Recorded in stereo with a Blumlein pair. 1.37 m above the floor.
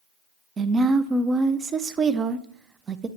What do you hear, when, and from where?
0.6 s a woman speaking: 20° right, 0.5 m